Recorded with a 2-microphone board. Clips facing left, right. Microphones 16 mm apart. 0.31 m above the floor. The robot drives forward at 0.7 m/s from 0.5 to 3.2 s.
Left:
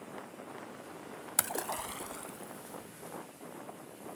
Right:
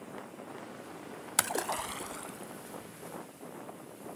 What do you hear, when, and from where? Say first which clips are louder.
1.4 s a splash: right 4 dB; 20° right (ahead or behind); by 2.9 s 5° right (ahead or behind)